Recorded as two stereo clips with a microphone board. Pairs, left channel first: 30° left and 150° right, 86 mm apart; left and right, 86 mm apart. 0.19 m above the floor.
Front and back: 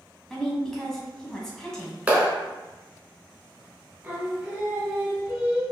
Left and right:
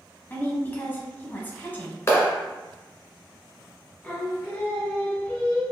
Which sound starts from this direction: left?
A woman speaking, at 0.3 s.